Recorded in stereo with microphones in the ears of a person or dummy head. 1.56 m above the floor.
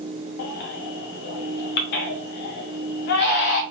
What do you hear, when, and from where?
0.4 s a baby crying: 60° left (ahead or behind), 0.7 m